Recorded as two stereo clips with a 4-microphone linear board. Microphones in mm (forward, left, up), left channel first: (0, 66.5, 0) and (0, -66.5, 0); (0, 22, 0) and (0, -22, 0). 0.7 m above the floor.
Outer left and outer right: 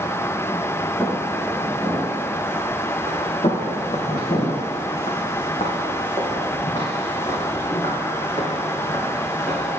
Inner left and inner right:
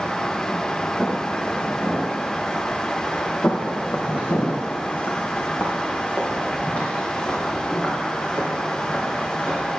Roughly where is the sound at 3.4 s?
Left.